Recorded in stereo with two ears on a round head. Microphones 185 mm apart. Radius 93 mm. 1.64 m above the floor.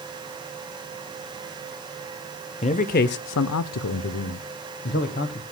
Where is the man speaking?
30° left (ahead or behind), 0.7 m; by 5.4 s 45° left (ahead or behind), 1.4 m.